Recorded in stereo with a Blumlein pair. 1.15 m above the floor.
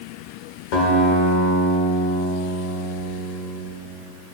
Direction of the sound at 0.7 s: 45° left.